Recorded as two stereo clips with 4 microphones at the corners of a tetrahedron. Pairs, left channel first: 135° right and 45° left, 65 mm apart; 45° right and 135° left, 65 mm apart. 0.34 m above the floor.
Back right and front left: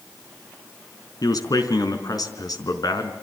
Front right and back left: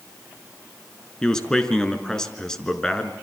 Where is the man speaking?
125° right, 3.5 m.